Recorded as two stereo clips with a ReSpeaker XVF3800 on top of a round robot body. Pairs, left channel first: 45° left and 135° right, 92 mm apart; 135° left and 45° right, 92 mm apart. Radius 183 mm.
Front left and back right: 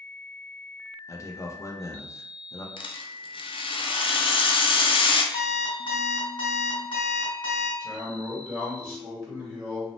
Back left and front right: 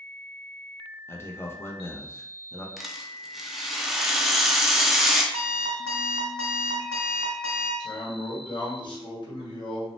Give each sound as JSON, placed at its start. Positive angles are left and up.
{"t": 1.1, "sound": "a man speaking", "azimuth_deg": 85, "distance_m": 0.8}
{"t": 2.8, "sound": "a rattle", "azimuth_deg": 40, "distance_m": 0.5}
{"t": 5.3, "sound": "an alarm clock", "azimuth_deg": 20, "distance_m": 1.3}
{"t": 7.8, "sound": "a man speaking", "azimuth_deg": 135, "distance_m": 1.5}